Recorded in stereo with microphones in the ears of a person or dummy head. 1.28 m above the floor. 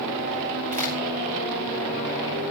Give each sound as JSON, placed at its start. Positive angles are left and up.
{"t": 0.7, "sound": "a crack", "side_deg": -40, "distance_m": 5.5}